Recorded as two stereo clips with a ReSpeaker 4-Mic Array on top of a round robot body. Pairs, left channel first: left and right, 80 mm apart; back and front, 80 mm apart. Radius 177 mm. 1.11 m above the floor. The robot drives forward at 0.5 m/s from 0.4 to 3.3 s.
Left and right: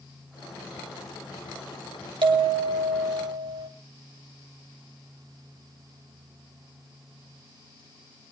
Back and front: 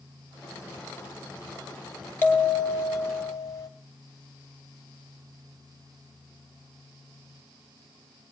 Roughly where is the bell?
Behind right.